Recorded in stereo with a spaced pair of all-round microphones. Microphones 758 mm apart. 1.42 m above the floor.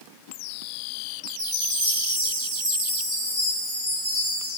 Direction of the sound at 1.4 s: 25° left (ahead or behind).